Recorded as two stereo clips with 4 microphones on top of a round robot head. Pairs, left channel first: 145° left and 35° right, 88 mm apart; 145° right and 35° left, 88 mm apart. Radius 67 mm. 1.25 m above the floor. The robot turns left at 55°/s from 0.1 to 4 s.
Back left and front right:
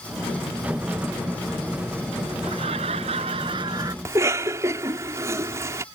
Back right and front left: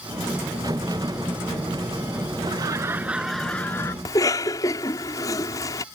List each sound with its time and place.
2.4 s laughter: 5° right; by 4.0 s 90° right
4.0 s a cough: 90° right